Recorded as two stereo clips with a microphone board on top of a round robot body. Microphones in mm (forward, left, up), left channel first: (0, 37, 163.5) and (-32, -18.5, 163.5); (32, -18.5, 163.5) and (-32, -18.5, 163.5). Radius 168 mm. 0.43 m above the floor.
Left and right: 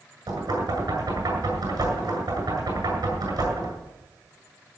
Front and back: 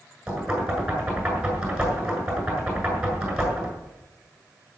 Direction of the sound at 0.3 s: 100° right.